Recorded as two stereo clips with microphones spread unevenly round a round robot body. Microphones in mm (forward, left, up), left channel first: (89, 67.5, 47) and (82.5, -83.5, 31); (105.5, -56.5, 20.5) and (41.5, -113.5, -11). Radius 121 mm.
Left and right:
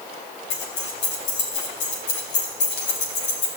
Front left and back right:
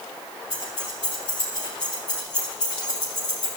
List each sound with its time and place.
0.5 s keys jangling: 105° left, 3 m